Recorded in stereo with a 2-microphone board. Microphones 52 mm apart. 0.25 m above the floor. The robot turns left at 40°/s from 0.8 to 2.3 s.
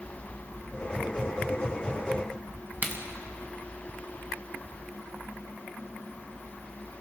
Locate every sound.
2.8 s a crack: 35° right (ahead or behind), 2.5 m